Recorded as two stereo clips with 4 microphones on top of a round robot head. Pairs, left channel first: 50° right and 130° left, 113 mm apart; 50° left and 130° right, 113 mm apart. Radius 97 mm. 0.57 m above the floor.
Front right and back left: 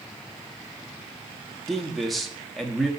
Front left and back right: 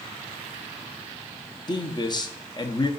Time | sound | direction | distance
1.7 | a man speaking | 40° left | 1.0 m